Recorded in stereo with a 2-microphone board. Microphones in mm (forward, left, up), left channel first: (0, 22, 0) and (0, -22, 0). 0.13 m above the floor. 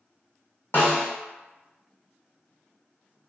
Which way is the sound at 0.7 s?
55° left (ahead or behind).